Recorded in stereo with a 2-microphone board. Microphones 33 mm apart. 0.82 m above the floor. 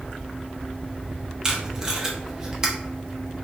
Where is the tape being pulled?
15° right (ahead or behind), 0.6 m.